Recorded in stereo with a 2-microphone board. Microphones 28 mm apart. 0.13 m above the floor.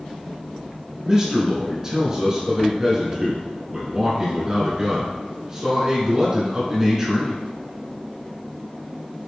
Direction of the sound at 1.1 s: 25° right (ahead or behind).